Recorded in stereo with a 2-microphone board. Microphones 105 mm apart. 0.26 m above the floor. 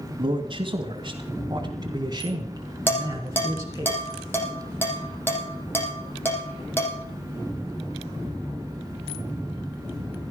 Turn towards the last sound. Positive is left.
turn(degrees=20)  # may be behind; listen again after turning